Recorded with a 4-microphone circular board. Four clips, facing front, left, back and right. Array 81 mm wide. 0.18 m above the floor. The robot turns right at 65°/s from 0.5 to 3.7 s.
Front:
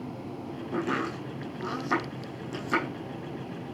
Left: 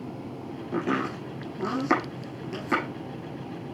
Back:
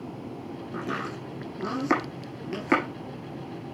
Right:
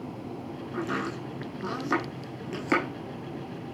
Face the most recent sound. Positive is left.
turn(degrees=-100)